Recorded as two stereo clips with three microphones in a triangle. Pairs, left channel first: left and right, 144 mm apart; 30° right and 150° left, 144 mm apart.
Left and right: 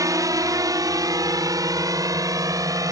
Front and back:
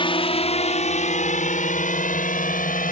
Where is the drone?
40° right; by 2.9 s 25° right.